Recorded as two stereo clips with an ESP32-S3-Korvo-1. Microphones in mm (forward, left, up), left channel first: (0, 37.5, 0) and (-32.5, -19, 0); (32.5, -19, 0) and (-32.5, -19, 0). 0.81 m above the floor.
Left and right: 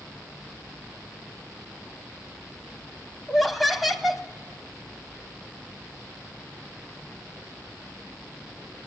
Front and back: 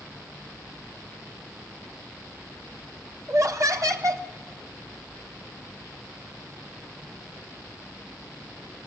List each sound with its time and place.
3.3 s laughter: 145° left, 0.8 m